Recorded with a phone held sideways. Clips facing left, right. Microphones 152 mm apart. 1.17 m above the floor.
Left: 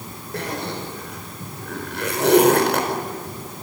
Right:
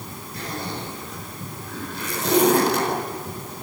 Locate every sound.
0.3 s a zipper: 90° left, 4.5 m